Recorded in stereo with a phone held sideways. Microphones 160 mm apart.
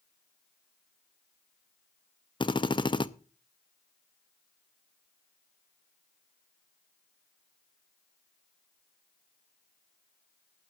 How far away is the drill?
About 0.7 m.